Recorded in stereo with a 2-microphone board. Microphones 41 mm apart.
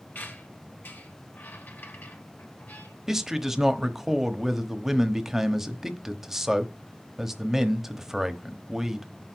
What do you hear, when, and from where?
0.1 s a squeak: 55° left (ahead or behind), 1.5 m
3.1 s a man speaking: 10° right (ahead or behind), 1.0 m